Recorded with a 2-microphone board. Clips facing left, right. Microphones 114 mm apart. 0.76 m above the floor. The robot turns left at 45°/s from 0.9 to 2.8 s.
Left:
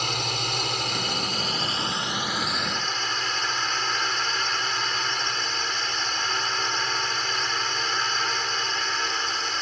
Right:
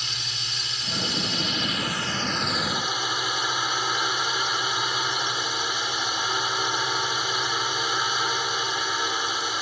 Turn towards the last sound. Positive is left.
turn(degrees=-10)